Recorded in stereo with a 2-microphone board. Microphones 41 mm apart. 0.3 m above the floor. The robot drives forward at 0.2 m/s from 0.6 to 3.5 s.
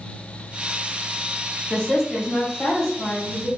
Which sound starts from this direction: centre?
A woman speaking, at 1.7 s.